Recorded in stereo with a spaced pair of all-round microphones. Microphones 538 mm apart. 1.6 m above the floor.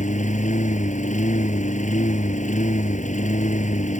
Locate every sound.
0.0 s a lawn mower: 10° left (ahead or behind)